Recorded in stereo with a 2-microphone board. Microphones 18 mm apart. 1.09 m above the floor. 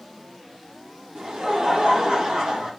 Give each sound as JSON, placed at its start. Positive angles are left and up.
{"t": 1.1, "sound": "laughter", "side_deg": -70, "distance_m": 1.4}